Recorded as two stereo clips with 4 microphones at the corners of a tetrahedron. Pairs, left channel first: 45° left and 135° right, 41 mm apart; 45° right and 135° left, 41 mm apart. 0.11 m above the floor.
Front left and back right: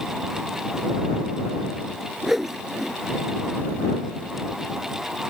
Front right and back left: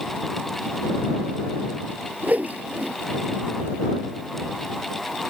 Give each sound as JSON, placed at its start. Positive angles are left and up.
{"t": 2.2, "sound": "a whoosh", "azimuth_deg": 145}